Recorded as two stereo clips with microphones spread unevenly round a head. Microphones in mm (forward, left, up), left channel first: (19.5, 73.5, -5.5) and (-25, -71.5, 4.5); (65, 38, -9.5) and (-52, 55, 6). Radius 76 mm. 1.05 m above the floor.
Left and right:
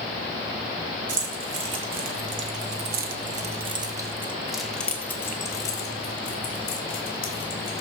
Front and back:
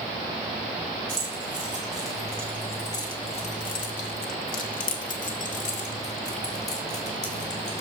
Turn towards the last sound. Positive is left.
turn(degrees=20)